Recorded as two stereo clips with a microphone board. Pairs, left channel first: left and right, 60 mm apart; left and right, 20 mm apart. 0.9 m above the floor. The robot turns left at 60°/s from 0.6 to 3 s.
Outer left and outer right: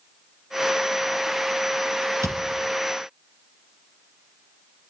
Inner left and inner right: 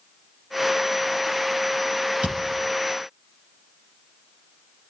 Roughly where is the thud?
Right.